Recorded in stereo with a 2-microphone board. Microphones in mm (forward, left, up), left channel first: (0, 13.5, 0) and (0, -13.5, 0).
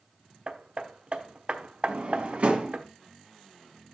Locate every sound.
0.5 s hammering: 55° right (ahead or behind), 1.1 m
1.9 s a drawer: 55° right (ahead or behind), 1.8 m